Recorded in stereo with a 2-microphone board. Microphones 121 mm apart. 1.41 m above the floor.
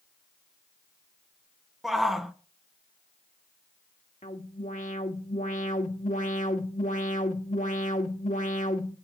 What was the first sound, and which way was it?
A shout, centre (ahead or behind).